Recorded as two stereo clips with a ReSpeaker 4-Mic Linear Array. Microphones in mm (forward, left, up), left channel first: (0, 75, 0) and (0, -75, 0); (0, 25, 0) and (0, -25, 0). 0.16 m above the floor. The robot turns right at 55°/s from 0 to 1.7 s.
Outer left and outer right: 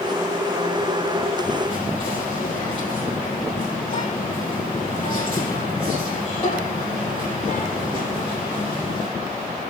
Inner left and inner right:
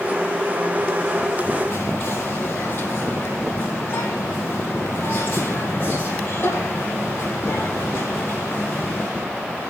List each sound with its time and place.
1.7 s whispering: 40° left (ahead or behind), 2.5 m